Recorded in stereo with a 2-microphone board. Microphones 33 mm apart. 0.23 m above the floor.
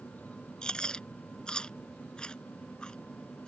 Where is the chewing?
25° left (ahead or behind).